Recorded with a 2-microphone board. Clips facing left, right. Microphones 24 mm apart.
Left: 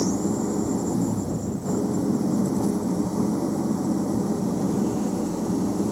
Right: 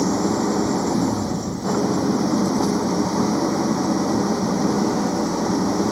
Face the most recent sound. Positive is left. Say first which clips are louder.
# right 4 dB
turn(degrees=-85)